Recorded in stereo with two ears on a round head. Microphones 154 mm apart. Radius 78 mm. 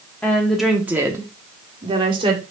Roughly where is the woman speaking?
Centre.